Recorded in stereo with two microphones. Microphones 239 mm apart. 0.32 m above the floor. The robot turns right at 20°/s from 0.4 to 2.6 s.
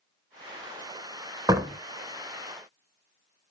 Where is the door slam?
15° right (ahead or behind), 0.5 m.